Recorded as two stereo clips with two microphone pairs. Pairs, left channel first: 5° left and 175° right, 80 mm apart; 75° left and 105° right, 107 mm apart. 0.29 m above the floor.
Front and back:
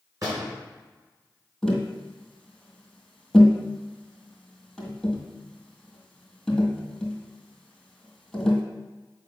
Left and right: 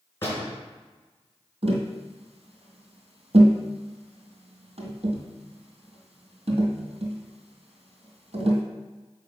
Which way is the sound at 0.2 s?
140° left.